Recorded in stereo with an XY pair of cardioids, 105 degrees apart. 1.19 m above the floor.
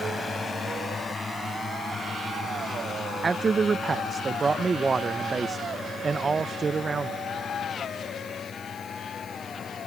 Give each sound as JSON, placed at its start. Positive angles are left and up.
{"t": 0.0, "sound": "a drone", "azimuth_deg": 25}
{"t": 3.2, "sound": "a man speaking", "azimuth_deg": -35}